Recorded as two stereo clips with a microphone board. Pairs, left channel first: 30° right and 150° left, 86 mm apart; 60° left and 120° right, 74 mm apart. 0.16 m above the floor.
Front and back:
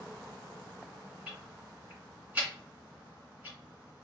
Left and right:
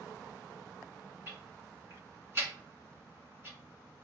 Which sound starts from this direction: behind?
Ticking, at 1.3 s.